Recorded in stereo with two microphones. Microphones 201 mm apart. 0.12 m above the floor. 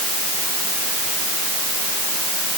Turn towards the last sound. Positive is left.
No sound to turn to.